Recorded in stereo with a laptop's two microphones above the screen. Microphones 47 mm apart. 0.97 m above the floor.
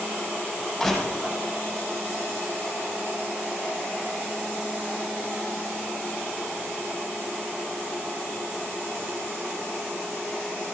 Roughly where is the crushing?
Centre.